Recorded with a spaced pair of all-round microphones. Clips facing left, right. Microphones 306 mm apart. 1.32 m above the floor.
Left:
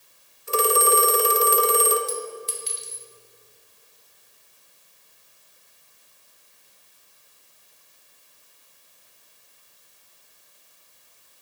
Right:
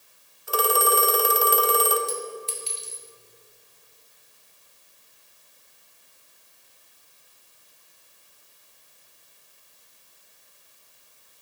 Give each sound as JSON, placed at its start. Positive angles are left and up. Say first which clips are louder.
{"t": 0.5, "sound": "a phone ringing", "louder": "left 2 dB", "side_deg": 30, "distance_m": 0.5}
{"t": 2.1, "sound": "a clink", "louder": "left 1 dB", "side_deg": 20, "distance_m": 0.9}